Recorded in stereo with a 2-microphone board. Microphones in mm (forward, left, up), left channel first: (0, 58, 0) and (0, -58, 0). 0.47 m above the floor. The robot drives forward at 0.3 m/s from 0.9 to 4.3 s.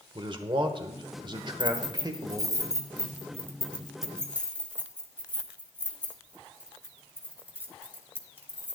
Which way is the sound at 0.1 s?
45° right (ahead or behind).